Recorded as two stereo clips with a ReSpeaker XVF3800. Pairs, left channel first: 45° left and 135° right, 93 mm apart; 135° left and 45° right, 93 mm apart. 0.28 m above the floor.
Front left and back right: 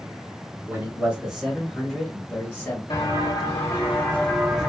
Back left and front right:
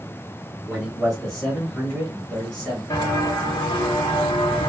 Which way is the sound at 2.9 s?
90° left.